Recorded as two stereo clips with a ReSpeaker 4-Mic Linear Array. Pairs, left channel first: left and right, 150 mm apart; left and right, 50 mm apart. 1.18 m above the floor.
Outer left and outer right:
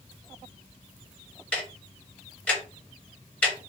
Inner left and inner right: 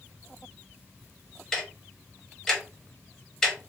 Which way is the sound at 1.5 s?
10° left (ahead or behind).